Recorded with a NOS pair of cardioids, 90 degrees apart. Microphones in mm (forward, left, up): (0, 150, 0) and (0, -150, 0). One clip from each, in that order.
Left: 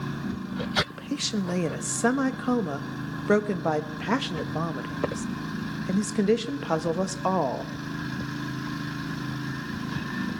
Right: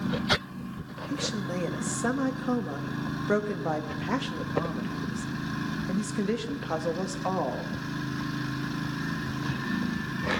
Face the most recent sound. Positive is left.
turn(degrees=30)